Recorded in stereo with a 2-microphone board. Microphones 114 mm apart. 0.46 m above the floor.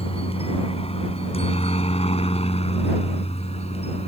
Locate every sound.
0.0 s a helicopter: 55° left (ahead or behind); by 4.1 s 60° left (ahead or behind)